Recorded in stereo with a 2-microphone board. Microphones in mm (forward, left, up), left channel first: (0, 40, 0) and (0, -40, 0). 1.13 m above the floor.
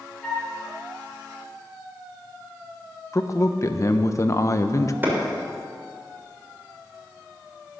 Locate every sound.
0.2 s a flute: 5° left (ahead or behind), 6 m
3.1 s a man speaking: 40° left (ahead or behind), 0.9 m
5.0 s a clap: 25° right (ahead or behind), 4 m